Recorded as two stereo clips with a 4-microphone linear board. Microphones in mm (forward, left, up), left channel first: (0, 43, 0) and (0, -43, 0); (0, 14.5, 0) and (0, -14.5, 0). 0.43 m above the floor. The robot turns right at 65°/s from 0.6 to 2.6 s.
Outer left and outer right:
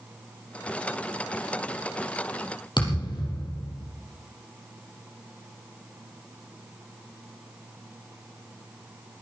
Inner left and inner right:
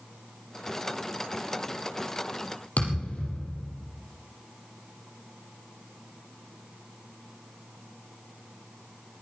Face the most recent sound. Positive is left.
turn(degrees=60)  # may be behind; listen again after turning